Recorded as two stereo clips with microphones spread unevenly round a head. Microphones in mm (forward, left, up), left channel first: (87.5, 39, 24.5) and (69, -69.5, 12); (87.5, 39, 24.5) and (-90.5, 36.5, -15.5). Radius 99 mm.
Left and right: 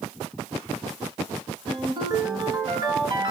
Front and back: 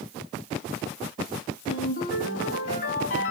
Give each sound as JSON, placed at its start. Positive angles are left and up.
{"t": 1.7, "sound": "a ringtone", "azimuth_deg": -50, "distance_m": 7.5}